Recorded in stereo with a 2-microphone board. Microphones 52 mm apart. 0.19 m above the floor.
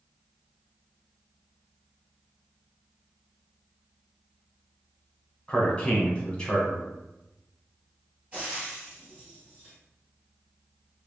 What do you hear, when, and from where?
5.5 s a man speaking: 20° left (ahead or behind), 1.0 m
8.3 s frying: 30° right (ahead or behind), 1.7 m